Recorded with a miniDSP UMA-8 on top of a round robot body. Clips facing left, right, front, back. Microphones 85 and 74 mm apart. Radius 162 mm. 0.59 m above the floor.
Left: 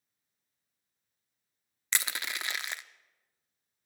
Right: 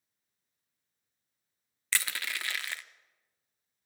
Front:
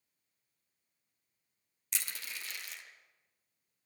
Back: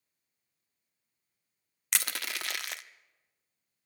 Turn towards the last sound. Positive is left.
turn(degrees=160)